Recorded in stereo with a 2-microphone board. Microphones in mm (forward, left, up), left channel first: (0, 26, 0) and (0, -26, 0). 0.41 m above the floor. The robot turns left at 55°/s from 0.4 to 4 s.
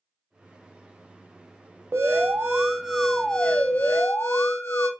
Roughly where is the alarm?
Behind right.